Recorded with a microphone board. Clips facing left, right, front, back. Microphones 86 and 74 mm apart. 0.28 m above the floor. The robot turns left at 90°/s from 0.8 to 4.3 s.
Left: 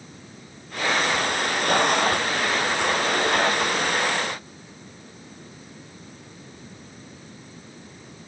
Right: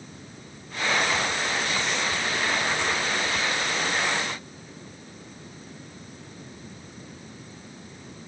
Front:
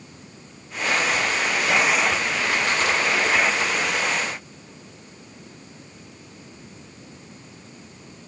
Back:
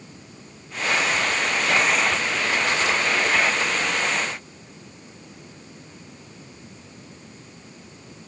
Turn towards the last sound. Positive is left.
No sound to turn to.